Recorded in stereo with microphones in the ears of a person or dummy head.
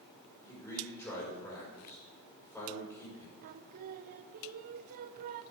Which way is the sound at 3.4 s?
45° right (ahead or behind).